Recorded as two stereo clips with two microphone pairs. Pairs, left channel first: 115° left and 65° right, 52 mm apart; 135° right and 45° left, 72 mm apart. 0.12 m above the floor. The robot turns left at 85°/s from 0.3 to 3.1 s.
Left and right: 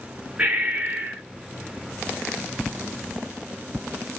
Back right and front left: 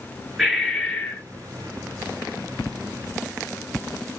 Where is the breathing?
30° right, 1.0 m; by 1.2 s 105° right, 1.0 m.